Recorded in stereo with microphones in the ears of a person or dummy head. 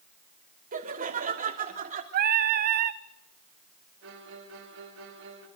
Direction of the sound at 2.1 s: 55° right (ahead or behind).